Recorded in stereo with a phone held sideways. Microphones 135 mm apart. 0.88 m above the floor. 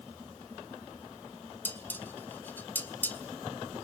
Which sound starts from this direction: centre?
Dishes clattering, at 1.6 s.